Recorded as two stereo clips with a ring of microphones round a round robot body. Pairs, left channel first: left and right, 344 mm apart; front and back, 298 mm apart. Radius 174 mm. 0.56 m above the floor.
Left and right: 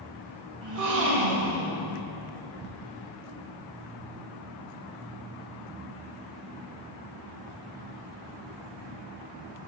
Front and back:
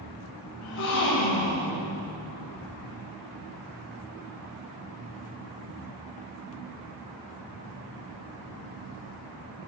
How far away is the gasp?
About 1.9 m.